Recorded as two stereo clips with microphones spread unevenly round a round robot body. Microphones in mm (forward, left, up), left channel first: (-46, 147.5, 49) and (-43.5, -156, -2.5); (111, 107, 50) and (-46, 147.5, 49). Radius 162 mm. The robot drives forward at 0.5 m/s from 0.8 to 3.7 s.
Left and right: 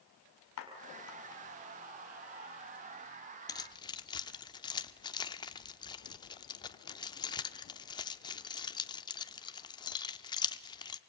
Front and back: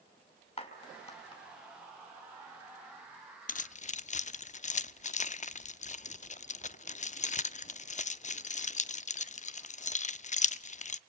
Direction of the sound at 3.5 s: 5° left.